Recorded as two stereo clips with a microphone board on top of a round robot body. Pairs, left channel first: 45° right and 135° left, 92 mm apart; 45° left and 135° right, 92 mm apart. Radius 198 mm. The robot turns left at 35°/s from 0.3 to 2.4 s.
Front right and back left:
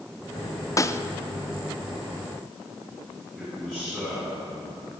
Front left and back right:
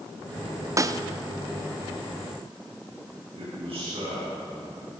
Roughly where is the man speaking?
Behind right.